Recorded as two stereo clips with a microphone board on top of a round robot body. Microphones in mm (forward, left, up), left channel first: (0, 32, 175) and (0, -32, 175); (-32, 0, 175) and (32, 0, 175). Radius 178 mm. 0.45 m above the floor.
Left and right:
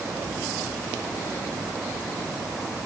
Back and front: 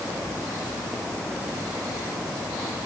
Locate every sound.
Only background noise.